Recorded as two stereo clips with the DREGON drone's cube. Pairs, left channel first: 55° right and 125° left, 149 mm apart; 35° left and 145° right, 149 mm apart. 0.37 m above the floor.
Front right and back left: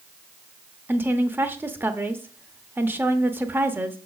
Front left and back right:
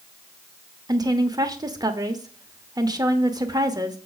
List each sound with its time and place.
0.9 s a woman speaking: 175° right, 0.8 m